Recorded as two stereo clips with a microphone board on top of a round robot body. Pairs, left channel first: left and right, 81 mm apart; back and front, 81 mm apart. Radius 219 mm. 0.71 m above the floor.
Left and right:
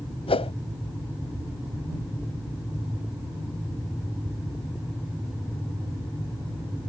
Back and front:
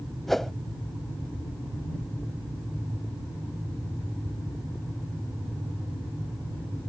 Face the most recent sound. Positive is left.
turn(degrees=90)